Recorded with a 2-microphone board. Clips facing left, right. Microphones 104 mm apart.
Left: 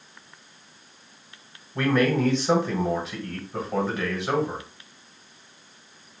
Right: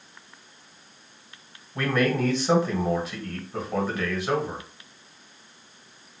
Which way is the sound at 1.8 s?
Centre (ahead or behind).